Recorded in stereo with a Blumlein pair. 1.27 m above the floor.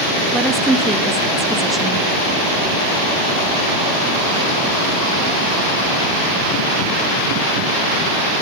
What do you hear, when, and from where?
0.3 s a woman speaking: 5° right, 1.3 m